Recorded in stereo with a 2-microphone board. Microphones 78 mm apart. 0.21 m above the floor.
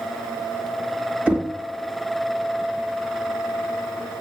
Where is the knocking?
20° right (ahead or behind), 1.1 m.